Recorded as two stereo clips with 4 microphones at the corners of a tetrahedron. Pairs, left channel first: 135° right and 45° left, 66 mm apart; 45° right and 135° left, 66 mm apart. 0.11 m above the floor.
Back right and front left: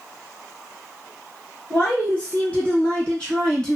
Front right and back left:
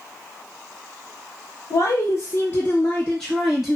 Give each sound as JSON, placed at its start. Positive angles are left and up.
{"t": 1.7, "sound": "a woman speaking", "azimuth_deg": -65, "distance_m": 1.5}